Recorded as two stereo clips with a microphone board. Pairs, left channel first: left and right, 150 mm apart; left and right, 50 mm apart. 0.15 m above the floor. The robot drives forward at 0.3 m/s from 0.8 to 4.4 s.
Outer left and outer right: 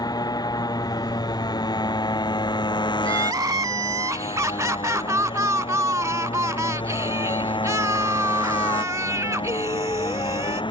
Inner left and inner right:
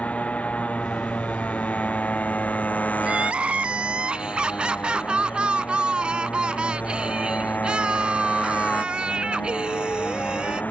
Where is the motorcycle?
25° left (ahead or behind); by 10.7 s 35° left (ahead or behind).